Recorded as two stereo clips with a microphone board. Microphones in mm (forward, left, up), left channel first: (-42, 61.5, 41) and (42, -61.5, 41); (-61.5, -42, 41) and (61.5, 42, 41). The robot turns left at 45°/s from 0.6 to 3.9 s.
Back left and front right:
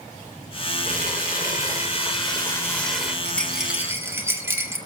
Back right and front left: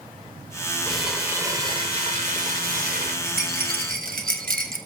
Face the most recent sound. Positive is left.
turn(degrees=20)